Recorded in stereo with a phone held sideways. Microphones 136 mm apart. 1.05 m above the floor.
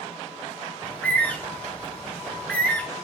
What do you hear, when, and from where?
0.8 s a bird: 10° left (ahead or behind), 0.5 m